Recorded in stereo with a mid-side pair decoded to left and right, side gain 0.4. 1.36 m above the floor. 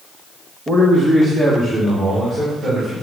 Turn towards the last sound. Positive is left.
turn(degrees=-30)